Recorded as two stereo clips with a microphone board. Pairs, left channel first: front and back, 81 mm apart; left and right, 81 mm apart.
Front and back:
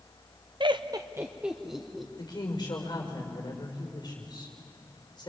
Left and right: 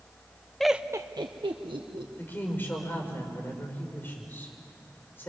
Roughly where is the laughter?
Behind.